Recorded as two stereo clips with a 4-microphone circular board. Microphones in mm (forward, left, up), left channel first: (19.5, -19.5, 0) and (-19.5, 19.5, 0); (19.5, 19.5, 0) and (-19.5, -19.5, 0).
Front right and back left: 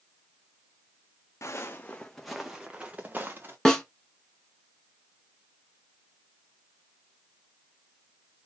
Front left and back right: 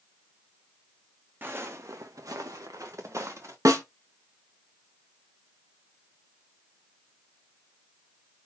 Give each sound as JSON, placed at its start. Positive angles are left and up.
{"t": 1.4, "sound": "footsteps", "azimuth_deg": -80, "distance_m": 0.8}
{"t": 3.6, "sound": "a snare drum", "azimuth_deg": -125, "distance_m": 0.9}